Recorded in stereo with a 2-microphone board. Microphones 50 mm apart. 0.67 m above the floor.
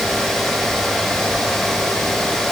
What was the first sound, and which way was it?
Only background noise.